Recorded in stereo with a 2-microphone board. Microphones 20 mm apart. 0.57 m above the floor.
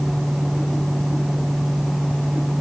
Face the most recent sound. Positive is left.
No sound to turn to.